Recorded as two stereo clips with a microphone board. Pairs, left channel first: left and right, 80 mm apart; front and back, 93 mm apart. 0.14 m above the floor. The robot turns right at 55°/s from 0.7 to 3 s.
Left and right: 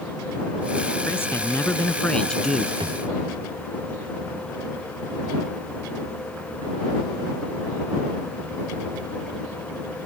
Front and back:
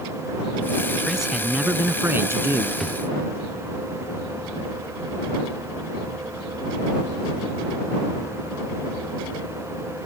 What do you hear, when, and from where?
1.1 s a man speaking: 90° left; by 2.7 s 175° right
2.8 s a drawer: 90° right; by 3.1 s 80° right